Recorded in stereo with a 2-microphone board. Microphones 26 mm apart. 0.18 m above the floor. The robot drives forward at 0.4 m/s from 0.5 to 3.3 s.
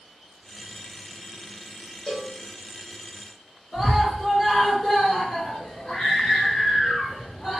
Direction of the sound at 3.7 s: 50° left (ahead or behind).